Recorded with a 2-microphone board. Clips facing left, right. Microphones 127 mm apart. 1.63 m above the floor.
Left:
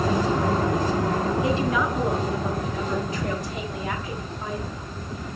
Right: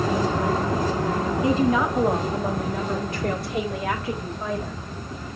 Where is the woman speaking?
35° right (ahead or behind), 2 m; by 4.7 s 75° right (ahead or behind), 3 m.